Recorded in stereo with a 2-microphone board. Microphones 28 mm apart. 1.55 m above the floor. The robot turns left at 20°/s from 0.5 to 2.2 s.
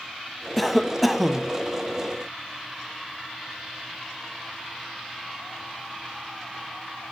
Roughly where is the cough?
Centre.